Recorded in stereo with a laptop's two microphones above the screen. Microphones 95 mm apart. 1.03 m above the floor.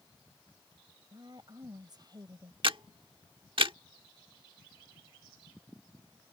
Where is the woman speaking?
50° right (ahead or behind).